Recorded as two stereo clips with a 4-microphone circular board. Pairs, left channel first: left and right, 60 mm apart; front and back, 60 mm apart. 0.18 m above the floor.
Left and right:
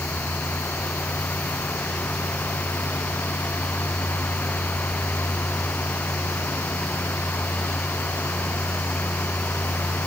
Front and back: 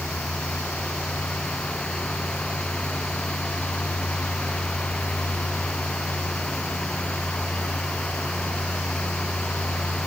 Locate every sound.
Only background noise.